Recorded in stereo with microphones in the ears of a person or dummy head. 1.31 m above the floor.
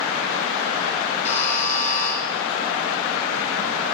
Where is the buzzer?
40° left (ahead or behind), 4 m.